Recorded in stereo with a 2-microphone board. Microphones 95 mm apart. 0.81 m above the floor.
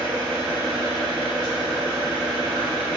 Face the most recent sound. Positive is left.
turn(degrees=-15)  # may be behind; listen again after turning